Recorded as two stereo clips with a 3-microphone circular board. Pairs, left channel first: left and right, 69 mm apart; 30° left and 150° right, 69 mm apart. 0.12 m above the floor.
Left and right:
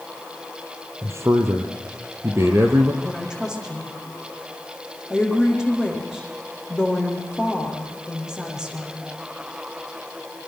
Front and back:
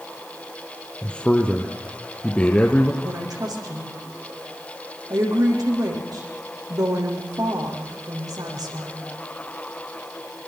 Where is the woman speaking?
170° right, 6.5 m.